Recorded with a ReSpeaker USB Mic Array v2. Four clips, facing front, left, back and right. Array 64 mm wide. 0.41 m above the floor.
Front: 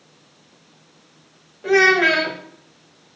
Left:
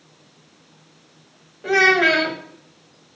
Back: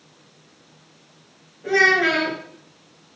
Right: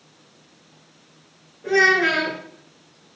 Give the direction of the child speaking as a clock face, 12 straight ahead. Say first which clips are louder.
Left 1 dB, front 3 dB; 10 o'clock.